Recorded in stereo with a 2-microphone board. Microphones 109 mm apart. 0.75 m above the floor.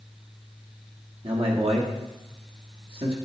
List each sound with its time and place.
1.2 s a man speaking: 60° right (ahead or behind), 1.2 m